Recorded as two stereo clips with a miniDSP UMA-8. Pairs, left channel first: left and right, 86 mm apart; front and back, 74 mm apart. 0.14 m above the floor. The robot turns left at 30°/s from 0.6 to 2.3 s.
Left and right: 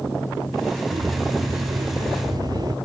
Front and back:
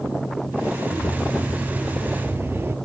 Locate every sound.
0.9 s a bird: 80° right, 1.2 m; by 2.8 s 125° right, 1.2 m